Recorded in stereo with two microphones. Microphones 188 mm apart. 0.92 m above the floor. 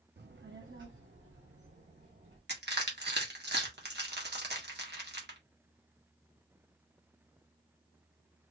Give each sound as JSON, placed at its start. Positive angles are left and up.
{"t": 0.2, "sound": "a child speaking", "side_deg": -60, "distance_m": 0.6}
{"t": 2.5, "sound": "crushing", "side_deg": -65, "distance_m": 1.6}